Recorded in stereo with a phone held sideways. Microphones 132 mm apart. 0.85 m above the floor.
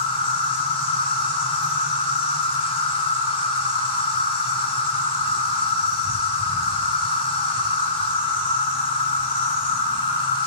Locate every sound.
0.0 s an insect: 45° left (ahead or behind), 0.9 m